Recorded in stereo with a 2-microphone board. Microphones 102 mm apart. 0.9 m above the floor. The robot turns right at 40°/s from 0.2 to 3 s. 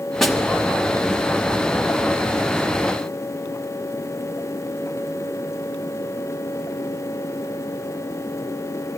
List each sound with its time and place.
0.2 s a snare drum: 5° left (ahead or behind), 1.6 m; by 0.4 s 5° right (ahead or behind), 1.6 m